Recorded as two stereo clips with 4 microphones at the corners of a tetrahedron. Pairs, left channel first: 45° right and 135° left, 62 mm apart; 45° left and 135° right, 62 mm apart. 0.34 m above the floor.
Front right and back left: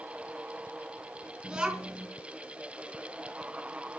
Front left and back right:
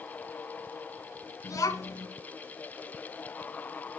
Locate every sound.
1.4 s a child speaking: 65° left, 3 m